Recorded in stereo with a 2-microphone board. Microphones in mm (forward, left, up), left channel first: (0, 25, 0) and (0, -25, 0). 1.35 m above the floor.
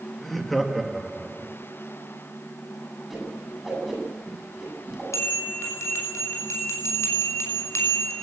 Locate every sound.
0.2 s laughter: 5° left (ahead or behind), 2.5 m; by 1.5 s 10° right (ahead or behind), 3 m
3.1 s a whoosh: 5° right (ahead or behind), 8 m
5.1 s a bell: 75° left (ahead or behind), 6 m